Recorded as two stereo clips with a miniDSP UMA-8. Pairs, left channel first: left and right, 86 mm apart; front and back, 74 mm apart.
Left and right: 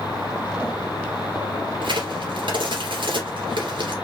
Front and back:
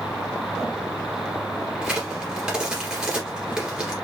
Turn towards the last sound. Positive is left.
turn(degrees=-100)